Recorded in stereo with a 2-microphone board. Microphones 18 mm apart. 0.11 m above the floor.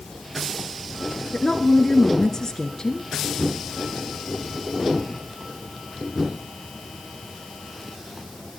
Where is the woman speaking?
30° left (ahead or behind), 1.9 m.